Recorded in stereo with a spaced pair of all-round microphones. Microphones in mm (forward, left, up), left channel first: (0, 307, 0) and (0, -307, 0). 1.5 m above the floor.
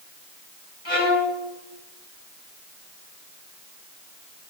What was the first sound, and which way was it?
A violin, 50° left (ahead or behind).